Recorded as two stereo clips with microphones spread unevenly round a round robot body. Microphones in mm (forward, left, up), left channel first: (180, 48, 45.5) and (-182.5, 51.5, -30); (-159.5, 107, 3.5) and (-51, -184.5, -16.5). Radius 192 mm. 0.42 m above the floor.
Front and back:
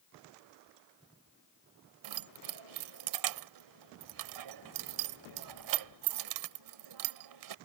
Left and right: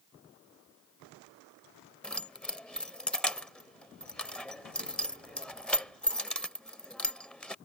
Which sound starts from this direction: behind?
Keys jangling, at 2.0 s.